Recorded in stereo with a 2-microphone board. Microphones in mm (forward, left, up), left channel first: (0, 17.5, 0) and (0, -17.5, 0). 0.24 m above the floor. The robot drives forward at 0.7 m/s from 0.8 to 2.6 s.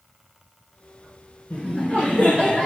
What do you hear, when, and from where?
1.5 s laughter: 45° left (ahead or behind), 2.5 m; by 2.7 s 35° left (ahead or behind), 3 m